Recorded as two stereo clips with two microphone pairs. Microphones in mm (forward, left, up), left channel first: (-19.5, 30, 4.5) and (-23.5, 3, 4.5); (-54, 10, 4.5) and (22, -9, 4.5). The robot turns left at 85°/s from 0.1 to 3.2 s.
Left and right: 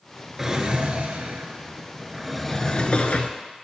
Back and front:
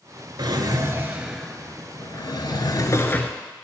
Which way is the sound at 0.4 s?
20° right.